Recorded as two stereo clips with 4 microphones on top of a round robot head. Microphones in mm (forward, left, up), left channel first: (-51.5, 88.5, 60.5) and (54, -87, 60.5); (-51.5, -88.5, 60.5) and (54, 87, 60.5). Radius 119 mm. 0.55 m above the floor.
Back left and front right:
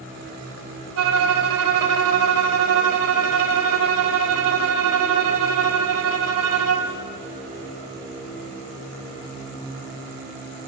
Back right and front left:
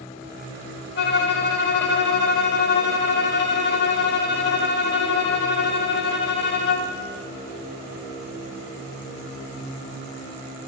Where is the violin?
80° right, 0.7 m.